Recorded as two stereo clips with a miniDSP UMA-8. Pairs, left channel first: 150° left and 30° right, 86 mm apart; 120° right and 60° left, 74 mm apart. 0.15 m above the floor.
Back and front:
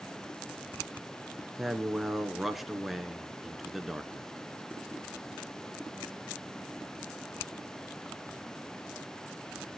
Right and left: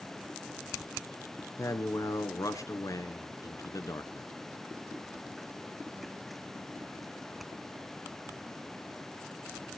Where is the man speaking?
120° right, 1.6 m.